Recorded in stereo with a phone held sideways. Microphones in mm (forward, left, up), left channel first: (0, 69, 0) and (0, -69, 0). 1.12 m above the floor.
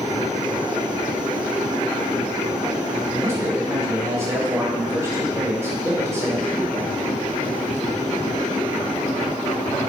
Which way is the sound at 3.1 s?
20° right (ahead or behind).